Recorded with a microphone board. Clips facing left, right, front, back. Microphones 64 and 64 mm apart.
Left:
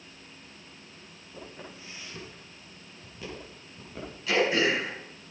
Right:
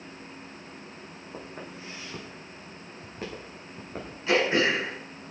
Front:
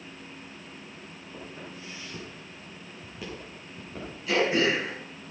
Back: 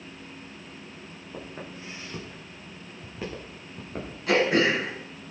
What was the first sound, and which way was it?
Footsteps, 125° right.